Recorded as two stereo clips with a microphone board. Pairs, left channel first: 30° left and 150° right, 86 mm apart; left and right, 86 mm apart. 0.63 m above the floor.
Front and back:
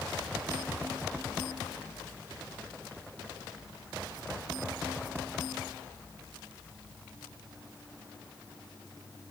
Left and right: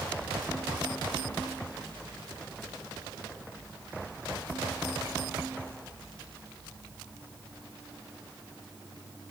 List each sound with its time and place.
Only background noise.